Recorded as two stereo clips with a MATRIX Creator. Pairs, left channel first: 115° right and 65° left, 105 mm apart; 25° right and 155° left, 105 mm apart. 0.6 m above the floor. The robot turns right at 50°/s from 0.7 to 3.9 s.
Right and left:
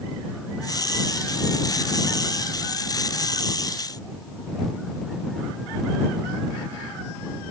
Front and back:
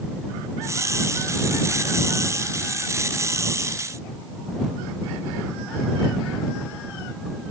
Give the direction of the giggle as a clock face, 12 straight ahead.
I don't hear a giggle.